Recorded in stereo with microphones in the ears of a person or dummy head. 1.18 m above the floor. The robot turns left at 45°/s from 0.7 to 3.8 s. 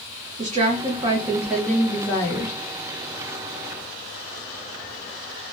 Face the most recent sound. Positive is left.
turn(degrees=80)